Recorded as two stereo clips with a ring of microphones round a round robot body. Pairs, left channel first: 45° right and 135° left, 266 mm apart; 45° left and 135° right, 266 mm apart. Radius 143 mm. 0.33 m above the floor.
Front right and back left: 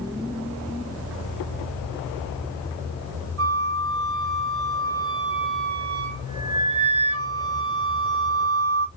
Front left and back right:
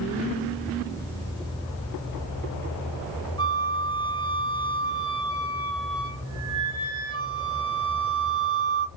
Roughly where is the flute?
Behind left.